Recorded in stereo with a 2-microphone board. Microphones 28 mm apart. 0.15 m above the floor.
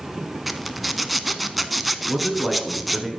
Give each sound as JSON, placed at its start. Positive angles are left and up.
{"t": 0.5, "sound": "a zipper", "side_deg": 0, "distance_m": 0.6}
{"t": 2.1, "sound": "a man speaking", "side_deg": -5, "distance_m": 1.9}